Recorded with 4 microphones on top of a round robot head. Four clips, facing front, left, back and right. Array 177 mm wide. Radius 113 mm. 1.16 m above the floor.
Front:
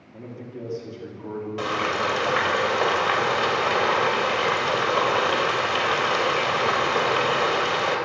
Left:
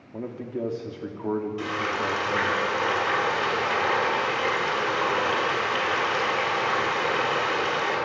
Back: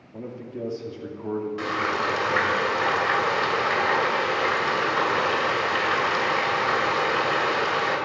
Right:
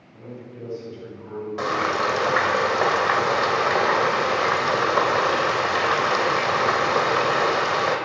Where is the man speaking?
105° left, 3.5 m.